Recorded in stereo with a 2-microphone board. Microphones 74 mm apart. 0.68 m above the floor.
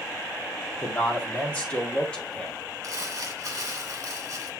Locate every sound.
0.8 s a man speaking: 20° left (ahead or behind), 1.9 m; by 2.5 s 15° left (ahead or behind), 2.5 m
2.8 s crumpling: 45° right (ahead or behind), 1.8 m